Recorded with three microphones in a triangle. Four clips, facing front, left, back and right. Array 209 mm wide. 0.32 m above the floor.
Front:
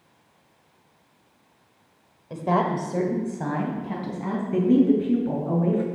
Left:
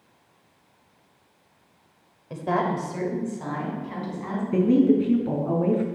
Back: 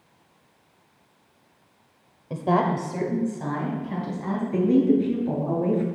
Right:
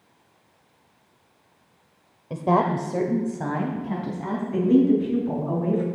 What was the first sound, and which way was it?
A woman speaking, 125° right.